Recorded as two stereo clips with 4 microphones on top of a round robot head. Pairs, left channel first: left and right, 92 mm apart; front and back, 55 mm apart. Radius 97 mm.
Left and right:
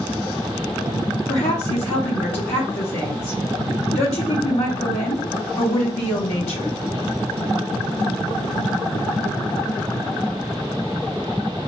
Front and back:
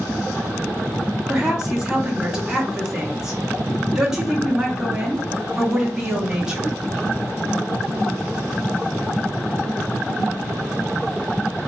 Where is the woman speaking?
100° left, 1.1 m.